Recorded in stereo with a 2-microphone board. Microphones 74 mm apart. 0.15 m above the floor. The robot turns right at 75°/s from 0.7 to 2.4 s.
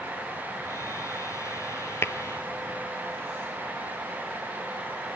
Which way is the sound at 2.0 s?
35° left (ahead or behind).